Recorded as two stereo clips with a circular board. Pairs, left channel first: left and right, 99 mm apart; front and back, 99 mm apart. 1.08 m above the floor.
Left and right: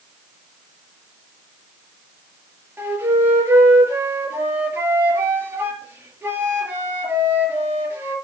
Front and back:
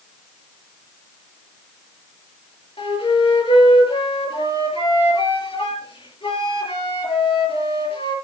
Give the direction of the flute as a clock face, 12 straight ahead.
1 o'clock.